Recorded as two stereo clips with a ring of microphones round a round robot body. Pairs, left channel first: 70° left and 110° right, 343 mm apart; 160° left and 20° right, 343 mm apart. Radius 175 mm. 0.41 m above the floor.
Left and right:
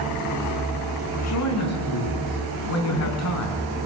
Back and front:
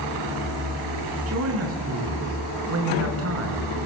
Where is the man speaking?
25° left, 5.5 m.